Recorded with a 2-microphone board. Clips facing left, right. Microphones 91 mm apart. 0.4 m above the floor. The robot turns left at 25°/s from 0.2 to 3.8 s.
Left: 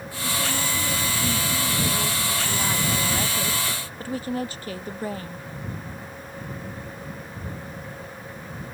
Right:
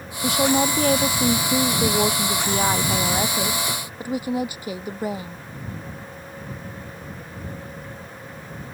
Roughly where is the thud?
No thud in this recording.